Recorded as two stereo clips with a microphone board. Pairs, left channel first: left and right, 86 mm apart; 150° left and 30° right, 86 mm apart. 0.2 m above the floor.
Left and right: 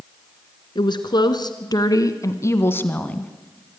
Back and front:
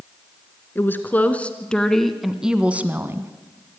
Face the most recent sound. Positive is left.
turn(degrees=15)